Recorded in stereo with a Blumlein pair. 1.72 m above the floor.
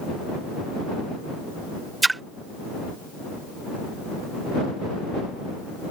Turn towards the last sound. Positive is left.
turn(degrees=-10)